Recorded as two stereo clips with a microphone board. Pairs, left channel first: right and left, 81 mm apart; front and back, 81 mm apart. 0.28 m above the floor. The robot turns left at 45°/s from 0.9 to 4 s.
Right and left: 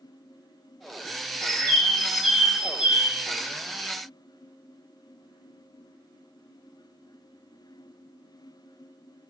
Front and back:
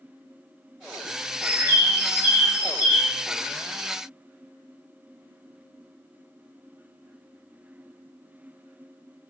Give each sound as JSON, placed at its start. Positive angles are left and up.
{"t": 1.4, "sound": "a bird", "azimuth_deg": -155, "distance_m": 0.7}